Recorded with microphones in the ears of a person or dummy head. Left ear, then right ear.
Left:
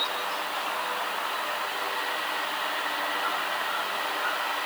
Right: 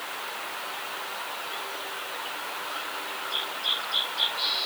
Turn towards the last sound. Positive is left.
No sound to turn to.